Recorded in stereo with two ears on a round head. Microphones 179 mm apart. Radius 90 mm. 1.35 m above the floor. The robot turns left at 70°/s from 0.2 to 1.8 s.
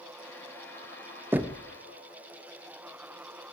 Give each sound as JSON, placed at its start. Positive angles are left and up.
{"t": 1.3, "sound": "knocking", "side_deg": -10, "distance_m": 0.6}